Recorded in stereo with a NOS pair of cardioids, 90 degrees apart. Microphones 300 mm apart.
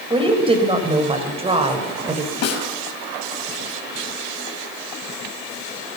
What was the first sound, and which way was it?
A woman speaking, 15° right.